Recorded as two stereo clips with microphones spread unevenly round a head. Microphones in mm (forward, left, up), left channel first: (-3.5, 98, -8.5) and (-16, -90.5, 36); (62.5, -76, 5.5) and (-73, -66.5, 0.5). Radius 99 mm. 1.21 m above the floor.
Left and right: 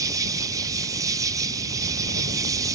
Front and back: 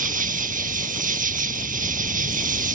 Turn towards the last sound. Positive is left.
turn(degrees=-165)